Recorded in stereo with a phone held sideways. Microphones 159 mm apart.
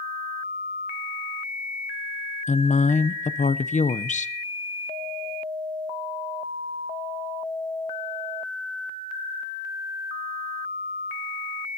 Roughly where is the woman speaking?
Left.